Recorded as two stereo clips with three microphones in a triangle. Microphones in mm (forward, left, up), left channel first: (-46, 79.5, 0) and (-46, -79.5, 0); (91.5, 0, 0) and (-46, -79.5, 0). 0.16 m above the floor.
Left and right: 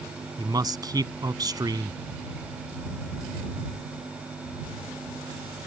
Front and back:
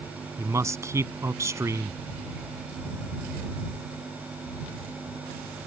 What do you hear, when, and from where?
0.4 s a man speaking: 105° right